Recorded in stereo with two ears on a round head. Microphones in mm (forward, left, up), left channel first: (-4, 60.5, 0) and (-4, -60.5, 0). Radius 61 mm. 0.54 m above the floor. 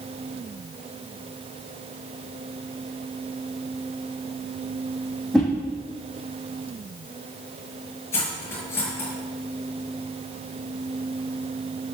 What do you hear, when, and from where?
5.3 s a whoosh: 5° left (ahead or behind), 5.5 m
8.1 s cutlery clinking: 20° left (ahead or behind), 5.5 m